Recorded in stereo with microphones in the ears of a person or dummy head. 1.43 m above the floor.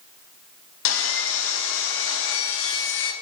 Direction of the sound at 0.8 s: 65° left (ahead or behind).